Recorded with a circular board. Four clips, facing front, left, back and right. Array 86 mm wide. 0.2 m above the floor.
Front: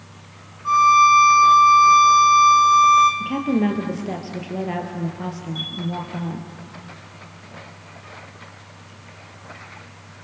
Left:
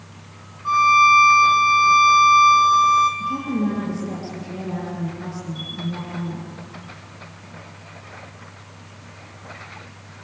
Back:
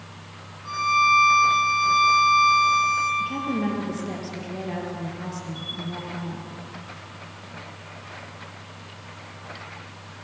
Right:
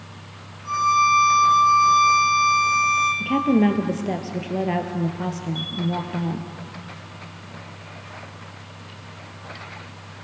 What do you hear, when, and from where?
0.7 s a violin: 45° left, 3 m
3.2 s a woman speaking: 70° right, 3.5 m
5.5 s a chime: 35° right, 4 m